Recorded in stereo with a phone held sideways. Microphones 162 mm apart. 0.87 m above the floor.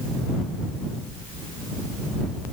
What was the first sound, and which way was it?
Only background noise.